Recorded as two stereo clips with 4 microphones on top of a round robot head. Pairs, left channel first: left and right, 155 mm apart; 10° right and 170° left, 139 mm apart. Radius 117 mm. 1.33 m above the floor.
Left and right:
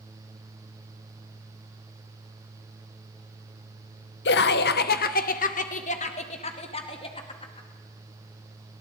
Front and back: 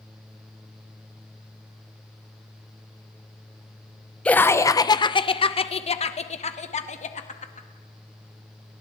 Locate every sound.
4.2 s laughter: 75° left, 0.7 m; by 7.7 s 25° left, 2.5 m